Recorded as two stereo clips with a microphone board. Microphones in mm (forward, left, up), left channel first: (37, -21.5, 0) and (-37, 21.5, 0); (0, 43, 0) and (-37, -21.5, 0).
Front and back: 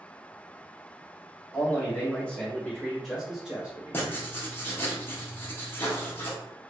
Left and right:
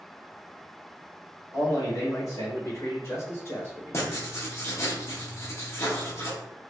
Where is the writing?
25° left, 0.8 m.